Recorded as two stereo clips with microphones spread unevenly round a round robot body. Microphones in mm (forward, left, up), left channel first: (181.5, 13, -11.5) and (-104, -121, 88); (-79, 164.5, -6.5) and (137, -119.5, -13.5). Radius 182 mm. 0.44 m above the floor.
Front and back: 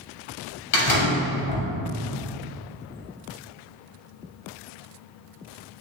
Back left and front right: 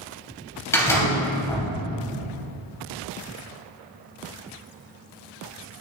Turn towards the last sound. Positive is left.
turn(degrees=45)